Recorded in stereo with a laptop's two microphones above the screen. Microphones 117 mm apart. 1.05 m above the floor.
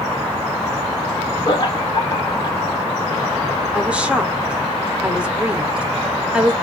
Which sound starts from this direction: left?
Laughter, at 1.4 s.